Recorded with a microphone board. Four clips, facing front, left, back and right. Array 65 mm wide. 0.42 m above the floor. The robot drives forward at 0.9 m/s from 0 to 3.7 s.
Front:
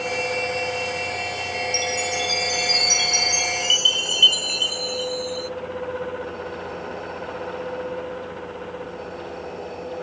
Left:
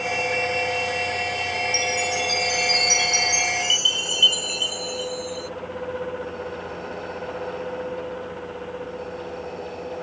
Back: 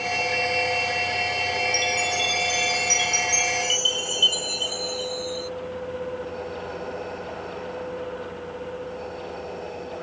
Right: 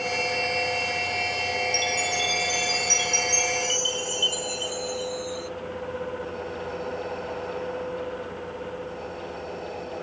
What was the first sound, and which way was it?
A chime, 25° left.